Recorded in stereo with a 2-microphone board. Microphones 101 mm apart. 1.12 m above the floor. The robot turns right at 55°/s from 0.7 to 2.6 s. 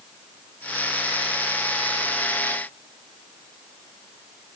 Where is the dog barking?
No dog barking in this recording.